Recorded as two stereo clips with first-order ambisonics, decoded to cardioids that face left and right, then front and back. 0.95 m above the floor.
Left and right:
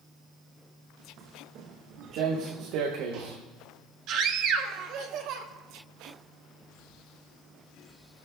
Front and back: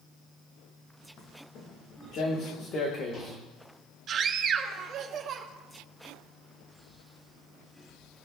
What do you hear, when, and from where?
1.2 s footsteps: 45° right, 4 m; by 3.4 s 60° right, 3 m
4.1 s a scream: 125° right, 1.7 m